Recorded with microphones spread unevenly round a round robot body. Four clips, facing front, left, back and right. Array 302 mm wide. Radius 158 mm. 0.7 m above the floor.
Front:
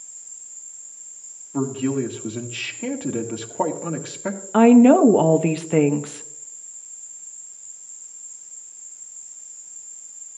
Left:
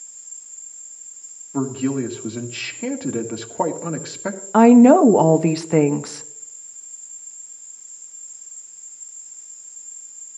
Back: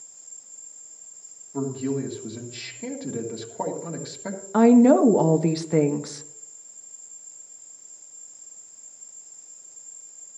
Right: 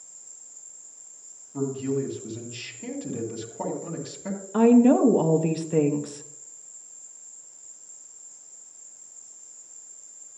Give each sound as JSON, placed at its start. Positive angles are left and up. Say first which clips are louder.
{"t": 0.0, "sound": "an insect", "louder": "left 1 dB, front 1 dB", "azimuth_deg": -170, "distance_m": 1.9}
{"t": 1.5, "sound": "a man speaking", "louder": "left 5 dB, front 4 dB", "azimuth_deg": 60, "distance_m": 1.8}
{"t": 4.5, "sound": "a woman speaking", "louder": "left 7 dB, front 3 dB", "azimuth_deg": 65, "distance_m": 0.8}